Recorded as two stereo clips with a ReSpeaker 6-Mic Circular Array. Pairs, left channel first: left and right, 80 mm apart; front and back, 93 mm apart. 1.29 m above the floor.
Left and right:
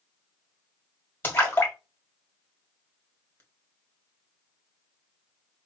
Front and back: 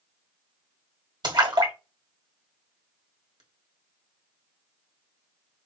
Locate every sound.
1.2 s a splash: 145° left, 1.3 m